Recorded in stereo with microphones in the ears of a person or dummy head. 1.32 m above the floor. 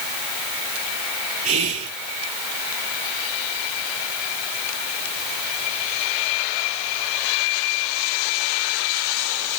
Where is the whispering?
40° right (ahead or behind), 1.3 m.